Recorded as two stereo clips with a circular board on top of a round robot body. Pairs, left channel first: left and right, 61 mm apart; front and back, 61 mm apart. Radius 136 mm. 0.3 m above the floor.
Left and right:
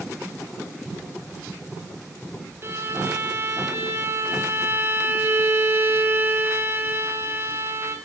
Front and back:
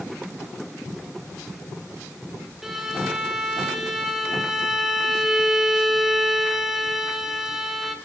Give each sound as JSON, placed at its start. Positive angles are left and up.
{"t": 2.6, "sound": "a violin", "azimuth_deg": -95, "distance_m": 1.4}